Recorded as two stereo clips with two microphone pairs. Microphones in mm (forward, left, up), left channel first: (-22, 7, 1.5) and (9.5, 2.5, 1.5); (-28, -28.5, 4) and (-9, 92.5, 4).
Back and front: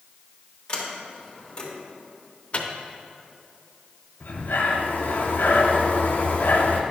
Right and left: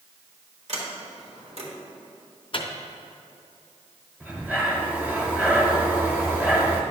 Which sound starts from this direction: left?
A sliding door, at 0.7 s.